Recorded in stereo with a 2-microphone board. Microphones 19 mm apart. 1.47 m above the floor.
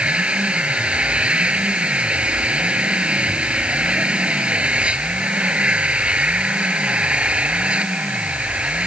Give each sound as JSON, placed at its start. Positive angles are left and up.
{"t": 0.0, "sound": "an engine running", "side_deg": -85}